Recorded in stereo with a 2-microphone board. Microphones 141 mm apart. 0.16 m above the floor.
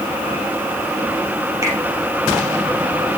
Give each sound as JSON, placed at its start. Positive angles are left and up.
{"t": 1.6, "sound": "a finger snap", "side_deg": -25, "distance_m": 3.5}